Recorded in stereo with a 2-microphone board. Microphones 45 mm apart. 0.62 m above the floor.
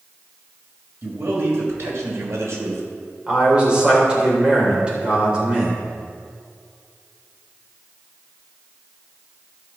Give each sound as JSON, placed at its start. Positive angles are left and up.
{"t": 1.0, "sound": "a man speaking", "side_deg": -55, "distance_m": 2.5}
{"t": 3.3, "sound": "a man speaking", "side_deg": -25, "distance_m": 3.0}